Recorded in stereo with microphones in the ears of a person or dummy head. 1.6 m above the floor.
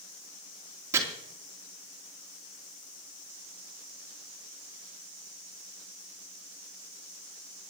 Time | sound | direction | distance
0.9 | chopping | 15° right (ahead or behind) | 3 m